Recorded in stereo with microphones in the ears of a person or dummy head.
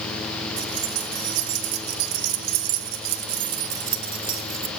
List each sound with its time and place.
0.6 s keys jangling: 65° right (ahead or behind), 2.5 m; by 4.7 s 15° right (ahead or behind), 1.6 m